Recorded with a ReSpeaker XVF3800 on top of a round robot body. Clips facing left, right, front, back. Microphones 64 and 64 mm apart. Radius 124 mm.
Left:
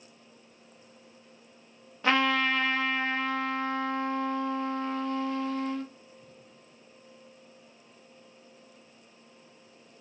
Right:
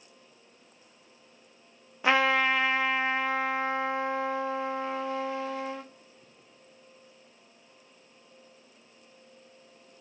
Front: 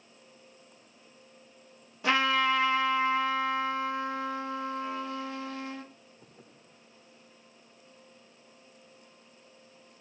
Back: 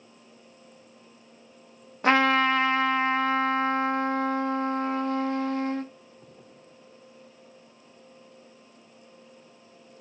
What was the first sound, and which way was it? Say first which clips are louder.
A trumpet: right 1 dB, back 5 dB; 165° right.